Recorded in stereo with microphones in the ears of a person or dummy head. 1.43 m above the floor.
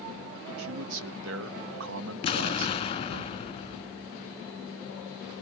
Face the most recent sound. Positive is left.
turn(degrees=30)  # may be behind; listen again after turning